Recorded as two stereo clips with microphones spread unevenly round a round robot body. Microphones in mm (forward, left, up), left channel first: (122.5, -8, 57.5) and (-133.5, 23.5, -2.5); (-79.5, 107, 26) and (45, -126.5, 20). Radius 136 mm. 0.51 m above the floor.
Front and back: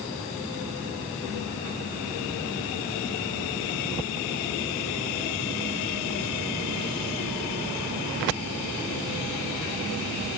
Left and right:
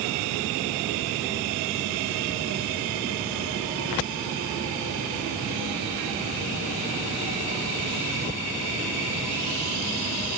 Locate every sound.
Only background noise.